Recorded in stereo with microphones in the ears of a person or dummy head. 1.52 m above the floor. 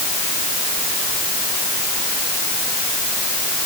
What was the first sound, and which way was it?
Only background noise.